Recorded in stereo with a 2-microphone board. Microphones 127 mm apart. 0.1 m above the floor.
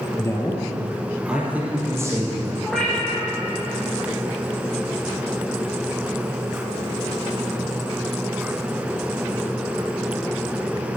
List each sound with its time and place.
0.2 s a man speaking: 25° left (ahead or behind), 2.5 m; by 2.5 s 30° right (ahead or behind), 4 m
2.6 s a cat meowing: 5° left (ahead or behind), 6 m